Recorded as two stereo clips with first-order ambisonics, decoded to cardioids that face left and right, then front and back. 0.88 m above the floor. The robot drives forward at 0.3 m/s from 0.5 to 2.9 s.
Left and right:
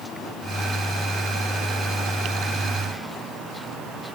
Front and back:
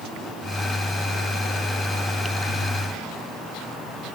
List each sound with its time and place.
Only background noise.